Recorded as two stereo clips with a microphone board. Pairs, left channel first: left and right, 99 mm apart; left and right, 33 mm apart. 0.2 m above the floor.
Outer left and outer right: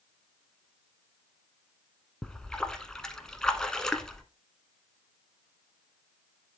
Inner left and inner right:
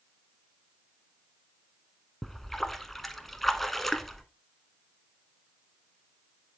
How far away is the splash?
About 0.9 m.